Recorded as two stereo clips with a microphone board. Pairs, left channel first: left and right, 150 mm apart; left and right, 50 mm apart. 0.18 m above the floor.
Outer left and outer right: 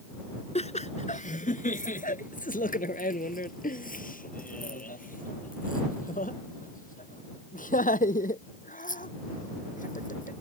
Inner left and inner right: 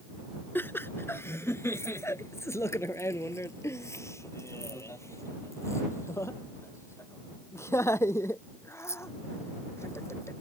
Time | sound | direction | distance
0.6 | laughter | 45° left (ahead or behind) | ?